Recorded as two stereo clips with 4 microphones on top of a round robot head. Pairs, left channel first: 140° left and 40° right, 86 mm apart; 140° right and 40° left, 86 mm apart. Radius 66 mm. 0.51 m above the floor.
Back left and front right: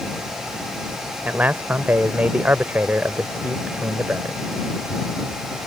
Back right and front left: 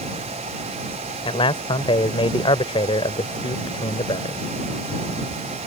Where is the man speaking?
115° right.